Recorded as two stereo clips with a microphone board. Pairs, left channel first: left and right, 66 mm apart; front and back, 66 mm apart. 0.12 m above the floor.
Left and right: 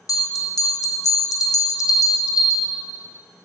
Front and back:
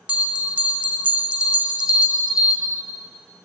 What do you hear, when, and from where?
0.1 s a bell: 110° left, 1.0 m